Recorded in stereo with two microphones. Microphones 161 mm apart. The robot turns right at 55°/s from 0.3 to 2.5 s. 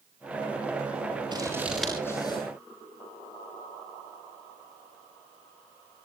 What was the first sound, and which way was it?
Scissors, 30° right (ahead or behind).